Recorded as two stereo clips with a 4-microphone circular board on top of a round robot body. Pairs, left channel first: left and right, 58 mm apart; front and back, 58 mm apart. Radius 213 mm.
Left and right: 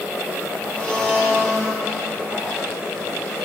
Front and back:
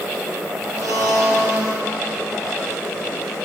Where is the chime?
I don't hear a chime.